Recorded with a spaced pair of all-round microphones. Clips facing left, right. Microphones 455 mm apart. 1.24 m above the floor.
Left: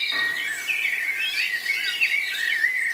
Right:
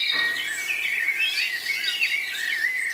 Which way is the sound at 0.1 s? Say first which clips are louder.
Even; 80° left.